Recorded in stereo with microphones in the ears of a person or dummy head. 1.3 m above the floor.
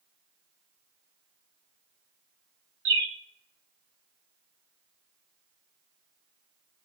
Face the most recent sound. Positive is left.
turn(degrees=-60)  # may be behind; listen again after turning